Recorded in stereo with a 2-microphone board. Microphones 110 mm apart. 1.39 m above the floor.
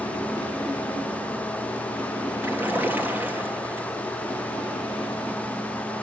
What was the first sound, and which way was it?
A splash, 20° right (ahead or behind).